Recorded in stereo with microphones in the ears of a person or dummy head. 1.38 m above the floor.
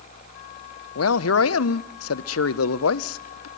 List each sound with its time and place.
0.9 s a man speaking: 90° left, 0.6 m